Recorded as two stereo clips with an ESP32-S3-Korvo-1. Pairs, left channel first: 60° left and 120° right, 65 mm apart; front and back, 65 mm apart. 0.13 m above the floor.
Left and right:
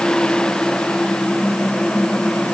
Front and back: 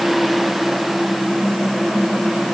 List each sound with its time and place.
Only background noise.